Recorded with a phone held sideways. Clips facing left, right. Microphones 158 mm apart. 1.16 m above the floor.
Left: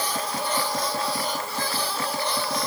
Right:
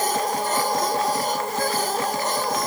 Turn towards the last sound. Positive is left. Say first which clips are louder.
# right 5 dB
turn(degrees=-45)  # may be behind; listen again after turning